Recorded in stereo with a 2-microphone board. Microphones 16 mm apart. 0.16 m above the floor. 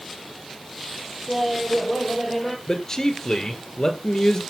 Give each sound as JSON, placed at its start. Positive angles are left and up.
{"t": 1.3, "sound": "laughter", "side_deg": -15, "distance_m": 5.0}
{"t": 2.7, "sound": "a man speaking", "side_deg": 35, "distance_m": 2.5}